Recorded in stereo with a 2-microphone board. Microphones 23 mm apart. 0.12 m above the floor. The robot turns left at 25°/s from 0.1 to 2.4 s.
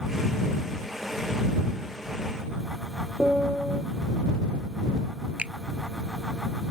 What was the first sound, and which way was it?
A piano, 35° right (ahead or behind).